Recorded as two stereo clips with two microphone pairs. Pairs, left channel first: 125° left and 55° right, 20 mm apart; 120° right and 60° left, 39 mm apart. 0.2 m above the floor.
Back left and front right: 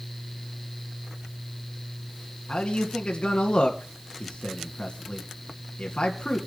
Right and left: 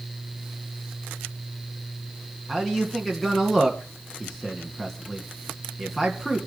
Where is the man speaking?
155° left, 2.5 m.